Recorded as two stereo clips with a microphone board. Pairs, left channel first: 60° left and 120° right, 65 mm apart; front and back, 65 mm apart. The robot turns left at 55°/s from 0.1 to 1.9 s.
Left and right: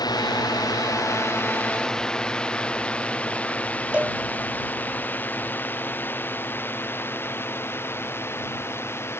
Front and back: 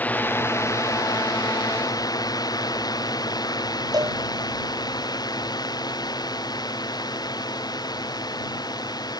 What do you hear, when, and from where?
0.0 s a drone: 65° left; by 9.2 s 5° left
3.9 s a cowbell: 170° left